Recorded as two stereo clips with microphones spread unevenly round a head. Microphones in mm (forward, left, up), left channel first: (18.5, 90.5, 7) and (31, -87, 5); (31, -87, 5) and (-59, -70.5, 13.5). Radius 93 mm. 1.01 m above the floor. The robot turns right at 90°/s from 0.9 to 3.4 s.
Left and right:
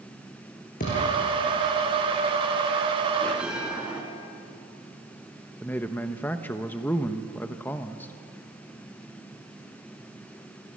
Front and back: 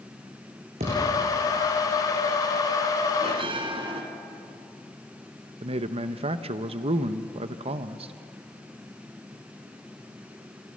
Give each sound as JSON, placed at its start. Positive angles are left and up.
{"t": 0.8, "sound": "a thud", "azimuth_deg": 145, "distance_m": 7.0}
{"t": 3.2, "sound": "a bell", "azimuth_deg": 170, "distance_m": 3.0}
{"t": 5.6, "sound": "a man speaking", "azimuth_deg": 175, "distance_m": 0.7}